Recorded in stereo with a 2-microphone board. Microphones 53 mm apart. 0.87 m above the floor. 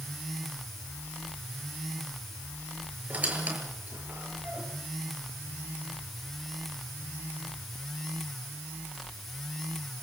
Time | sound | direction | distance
3.1 | a squeak | 30° right (ahead or behind) | 7.5 m